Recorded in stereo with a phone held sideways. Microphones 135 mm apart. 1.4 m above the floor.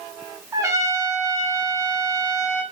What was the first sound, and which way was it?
A trumpet, 20° right (ahead or behind).